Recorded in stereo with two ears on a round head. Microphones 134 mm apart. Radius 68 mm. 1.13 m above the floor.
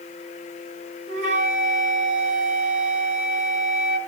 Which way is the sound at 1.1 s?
55° right (ahead or behind).